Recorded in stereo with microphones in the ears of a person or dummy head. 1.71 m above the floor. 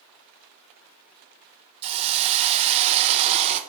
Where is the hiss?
35° right (ahead or behind), 1.1 m.